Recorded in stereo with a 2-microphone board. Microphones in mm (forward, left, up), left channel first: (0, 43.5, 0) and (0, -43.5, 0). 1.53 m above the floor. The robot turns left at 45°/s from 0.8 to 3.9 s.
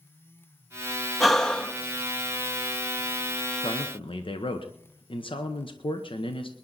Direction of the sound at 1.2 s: Centre (ahead or behind).